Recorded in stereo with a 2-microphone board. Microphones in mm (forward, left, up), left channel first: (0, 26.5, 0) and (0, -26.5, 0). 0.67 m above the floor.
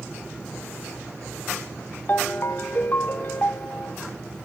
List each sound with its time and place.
2.1 s a ringtone: 40° left (ahead or behind), 0.9 m